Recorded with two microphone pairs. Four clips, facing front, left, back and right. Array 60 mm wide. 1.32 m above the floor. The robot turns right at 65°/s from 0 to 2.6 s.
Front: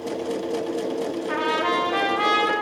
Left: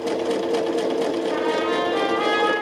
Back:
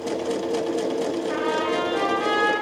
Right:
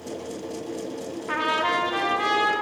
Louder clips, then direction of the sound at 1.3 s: Left 2 dB, front 4 dB; 65° right.